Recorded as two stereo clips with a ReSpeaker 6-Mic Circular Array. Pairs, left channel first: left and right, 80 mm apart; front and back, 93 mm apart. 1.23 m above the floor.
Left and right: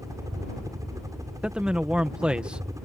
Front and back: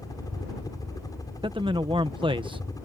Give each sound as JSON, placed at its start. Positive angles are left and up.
{"t": 0.0, "sound": "a helicopter", "azimuth_deg": -45}
{"t": 1.4, "sound": "a man speaking", "azimuth_deg": -170}